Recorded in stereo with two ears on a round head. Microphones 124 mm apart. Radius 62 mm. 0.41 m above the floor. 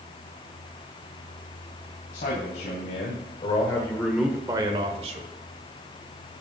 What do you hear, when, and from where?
2.1 s a man speaking: 60° left (ahead or behind), 2.5 m; by 5.3 s 55° right (ahead or behind), 1.7 m